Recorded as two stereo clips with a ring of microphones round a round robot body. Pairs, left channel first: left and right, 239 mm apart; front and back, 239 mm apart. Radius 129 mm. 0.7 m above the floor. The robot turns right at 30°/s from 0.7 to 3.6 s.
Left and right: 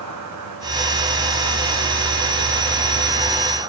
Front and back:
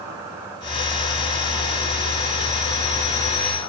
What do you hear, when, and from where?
0.0 s an insect: 100° right, 5.5 m; by 3.7 s 10° right, 5.5 m